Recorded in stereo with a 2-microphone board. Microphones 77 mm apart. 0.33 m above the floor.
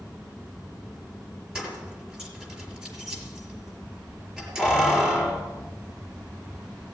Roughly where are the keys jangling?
Centre.